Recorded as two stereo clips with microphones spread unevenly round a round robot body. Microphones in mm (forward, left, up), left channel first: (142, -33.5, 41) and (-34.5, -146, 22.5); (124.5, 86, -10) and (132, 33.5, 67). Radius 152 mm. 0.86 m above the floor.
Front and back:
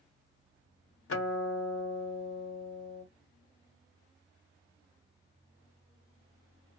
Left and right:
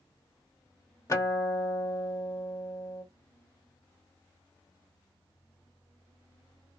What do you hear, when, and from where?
1.1 s a guitar: 35° left, 1.1 m